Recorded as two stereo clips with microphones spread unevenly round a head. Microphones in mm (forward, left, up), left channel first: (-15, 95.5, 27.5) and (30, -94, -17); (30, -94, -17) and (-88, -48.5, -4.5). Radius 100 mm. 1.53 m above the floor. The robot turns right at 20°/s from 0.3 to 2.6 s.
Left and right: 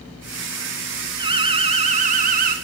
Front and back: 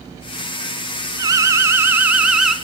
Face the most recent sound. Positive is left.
turn(degrees=-110)